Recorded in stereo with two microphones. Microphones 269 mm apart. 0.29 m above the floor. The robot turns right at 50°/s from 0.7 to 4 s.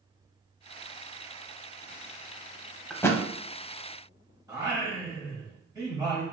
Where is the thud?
5° left (ahead or behind), 0.6 m; by 3.2 s 15° left (ahead or behind), 0.6 m.